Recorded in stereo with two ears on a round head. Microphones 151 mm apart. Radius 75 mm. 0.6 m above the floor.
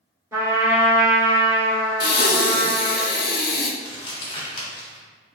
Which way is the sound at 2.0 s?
55° left (ahead or behind).